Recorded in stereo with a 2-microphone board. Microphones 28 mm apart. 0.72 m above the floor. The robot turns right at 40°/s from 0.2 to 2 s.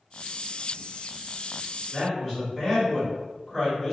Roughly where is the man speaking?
Centre.